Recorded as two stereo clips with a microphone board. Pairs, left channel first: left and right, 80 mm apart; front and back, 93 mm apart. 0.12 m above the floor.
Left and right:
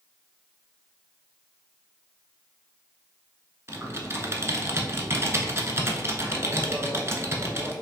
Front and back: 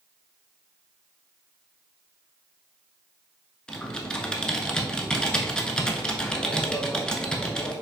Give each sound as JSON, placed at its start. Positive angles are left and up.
{"t": 3.7, "sound": "typing on a keyboard", "azimuth_deg": -75, "distance_m": 0.6}